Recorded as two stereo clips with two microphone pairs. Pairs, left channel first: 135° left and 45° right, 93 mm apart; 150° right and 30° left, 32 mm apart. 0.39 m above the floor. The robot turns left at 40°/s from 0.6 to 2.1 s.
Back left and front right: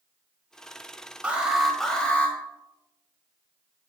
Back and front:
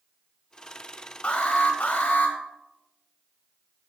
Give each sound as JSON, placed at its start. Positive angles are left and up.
{"t": 1.2, "sound": "an alarm", "azimuth_deg": -115, "distance_m": 2.0}